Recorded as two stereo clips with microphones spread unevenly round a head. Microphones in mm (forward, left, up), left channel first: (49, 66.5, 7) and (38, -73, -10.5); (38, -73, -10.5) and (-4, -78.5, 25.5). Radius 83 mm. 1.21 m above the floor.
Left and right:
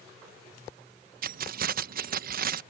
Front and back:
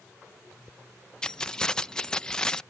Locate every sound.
1.2 s keys jangling: 75° right